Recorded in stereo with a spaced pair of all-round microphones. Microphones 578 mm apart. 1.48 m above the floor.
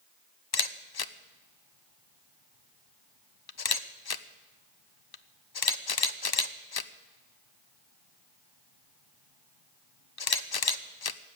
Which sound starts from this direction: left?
A camera shutter, at 0.5 s.